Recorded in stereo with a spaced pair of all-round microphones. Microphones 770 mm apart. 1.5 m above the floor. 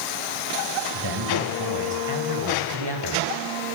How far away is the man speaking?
About 7.5 m.